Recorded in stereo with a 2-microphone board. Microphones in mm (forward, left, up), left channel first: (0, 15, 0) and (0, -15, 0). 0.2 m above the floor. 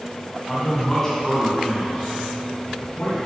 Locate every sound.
0.5 s a man speaking: 15° left (ahead or behind), 1.7 m; by 3.2 s 25° left (ahead or behind), 2.5 m